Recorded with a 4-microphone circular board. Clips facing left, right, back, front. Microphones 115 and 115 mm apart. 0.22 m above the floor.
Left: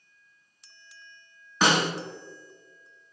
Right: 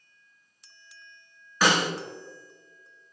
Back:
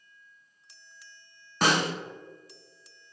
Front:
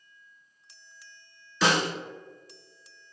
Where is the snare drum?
155° left, 1.2 m.